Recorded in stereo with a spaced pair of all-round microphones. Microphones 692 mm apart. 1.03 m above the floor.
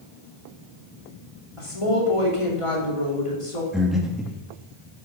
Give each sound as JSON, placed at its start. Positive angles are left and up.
{"t": 1.6, "sound": "a woman speaking", "side_deg": 45, "distance_m": 3.0}
{"t": 3.7, "sound": "breathing", "side_deg": 0, "distance_m": 1.5}